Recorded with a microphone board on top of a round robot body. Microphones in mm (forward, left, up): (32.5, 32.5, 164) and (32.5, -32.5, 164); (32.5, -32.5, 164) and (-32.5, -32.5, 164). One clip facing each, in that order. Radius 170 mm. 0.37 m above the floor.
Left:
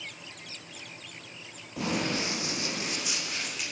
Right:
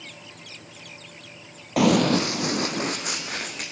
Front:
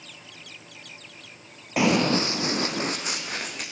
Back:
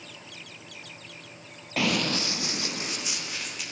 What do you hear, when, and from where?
1.8 s running footsteps: 75° right, 0.7 m; by 3.6 s 45° right, 2.5 m